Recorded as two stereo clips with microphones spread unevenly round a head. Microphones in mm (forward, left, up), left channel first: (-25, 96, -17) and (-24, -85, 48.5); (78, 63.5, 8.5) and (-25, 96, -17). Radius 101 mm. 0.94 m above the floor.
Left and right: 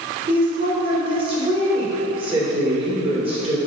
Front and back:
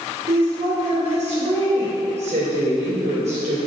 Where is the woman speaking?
155° right, 3 m.